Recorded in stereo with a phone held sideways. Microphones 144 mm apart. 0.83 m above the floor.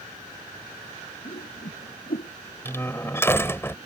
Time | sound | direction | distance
1.2 | a whoosh | 90° left | ?
2.6 | a door slam | 15° left (ahead or behind) | ?